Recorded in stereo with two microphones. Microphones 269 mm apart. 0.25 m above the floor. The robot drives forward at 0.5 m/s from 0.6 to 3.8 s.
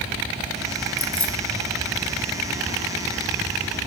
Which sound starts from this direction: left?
Keys jangling, at 1.0 s.